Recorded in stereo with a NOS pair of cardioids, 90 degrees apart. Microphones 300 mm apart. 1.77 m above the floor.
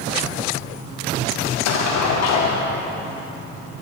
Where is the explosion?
65° left, 0.8 m.